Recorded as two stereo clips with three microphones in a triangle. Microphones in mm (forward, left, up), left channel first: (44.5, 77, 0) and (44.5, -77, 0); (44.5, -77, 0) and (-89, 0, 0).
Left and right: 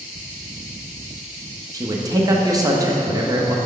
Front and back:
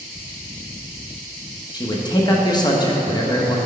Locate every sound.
1.7 s a man speaking: 50° right, 0.5 m